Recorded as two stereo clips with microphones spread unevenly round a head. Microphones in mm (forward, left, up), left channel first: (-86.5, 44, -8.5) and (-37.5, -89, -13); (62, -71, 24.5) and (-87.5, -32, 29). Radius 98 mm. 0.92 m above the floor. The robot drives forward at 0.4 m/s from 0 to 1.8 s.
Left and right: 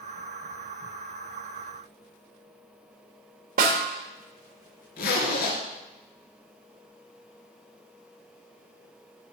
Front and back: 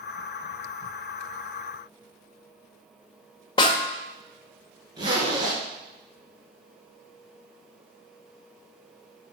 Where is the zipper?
95° left, 2.5 m.